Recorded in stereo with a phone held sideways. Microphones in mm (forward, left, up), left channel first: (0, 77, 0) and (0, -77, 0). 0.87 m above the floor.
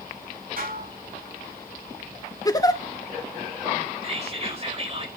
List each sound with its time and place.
0.6 s dishes clattering: 65° right (ahead or behind), 6.5 m
2.5 s a giggle: 25° left (ahead or behind), 0.9 m
4.0 s whispering: 45° right (ahead or behind), 4.5 m